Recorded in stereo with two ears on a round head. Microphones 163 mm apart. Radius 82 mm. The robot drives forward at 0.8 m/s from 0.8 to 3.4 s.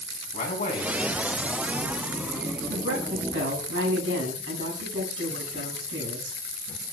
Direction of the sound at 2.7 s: 75° right (ahead or behind).